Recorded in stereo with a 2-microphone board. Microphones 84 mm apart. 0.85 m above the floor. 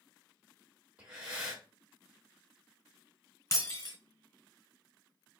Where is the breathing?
10° right (ahead or behind), 1.9 m.